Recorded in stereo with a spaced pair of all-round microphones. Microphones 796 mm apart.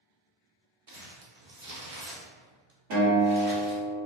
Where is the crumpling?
45° right (ahead or behind), 0.8 m.